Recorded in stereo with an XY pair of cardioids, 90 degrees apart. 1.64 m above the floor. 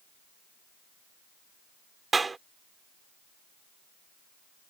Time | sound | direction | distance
2.1 | a clap | 30° right | ?